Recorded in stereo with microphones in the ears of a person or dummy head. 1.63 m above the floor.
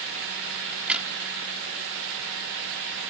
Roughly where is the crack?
Centre.